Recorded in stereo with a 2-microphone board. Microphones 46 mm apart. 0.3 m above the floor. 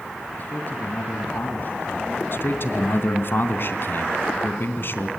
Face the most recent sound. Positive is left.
turn(degrees=50)  # may be behind; listen again after turning